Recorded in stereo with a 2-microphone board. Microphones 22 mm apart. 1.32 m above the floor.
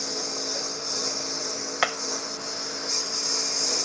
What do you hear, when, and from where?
0.0 s a lawn mower: centre (ahead or behind)
1.8 s hammering: 15° right (ahead or behind)